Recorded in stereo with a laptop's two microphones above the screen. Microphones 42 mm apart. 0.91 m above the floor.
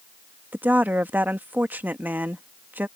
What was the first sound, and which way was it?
A woman speaking, 50° right (ahead or behind).